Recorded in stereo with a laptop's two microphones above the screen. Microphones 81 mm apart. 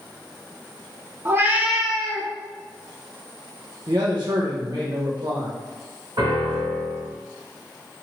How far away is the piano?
About 1.7 m.